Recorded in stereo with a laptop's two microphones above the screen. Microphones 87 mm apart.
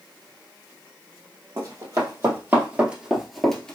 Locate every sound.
1.6 s running footsteps: 45° right (ahead or behind), 1.8 m; by 3.8 s 15° left (ahead or behind), 1.2 m